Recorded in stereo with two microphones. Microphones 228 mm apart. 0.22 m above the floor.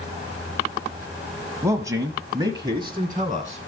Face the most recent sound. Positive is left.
turn(degrees=-20)  # may be behind; listen again after turning